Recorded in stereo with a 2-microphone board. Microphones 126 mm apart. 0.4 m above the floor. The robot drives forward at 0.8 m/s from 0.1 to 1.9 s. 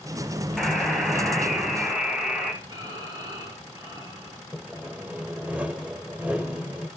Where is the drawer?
No drawer in this recording.